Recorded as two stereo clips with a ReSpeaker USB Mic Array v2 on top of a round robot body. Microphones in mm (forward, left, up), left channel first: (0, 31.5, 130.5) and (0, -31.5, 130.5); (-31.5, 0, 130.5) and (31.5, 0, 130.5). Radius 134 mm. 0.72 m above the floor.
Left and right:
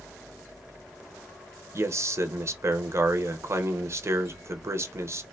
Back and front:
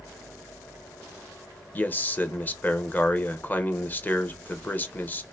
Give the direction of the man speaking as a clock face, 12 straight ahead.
4 o'clock.